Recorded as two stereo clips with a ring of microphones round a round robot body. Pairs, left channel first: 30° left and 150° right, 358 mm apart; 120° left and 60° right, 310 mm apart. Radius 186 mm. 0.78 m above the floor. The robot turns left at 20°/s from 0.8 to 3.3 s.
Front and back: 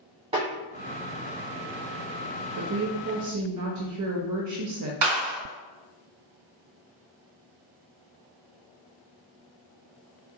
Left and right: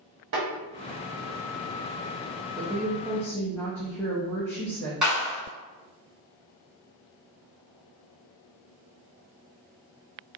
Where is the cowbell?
No cowbell in this recording.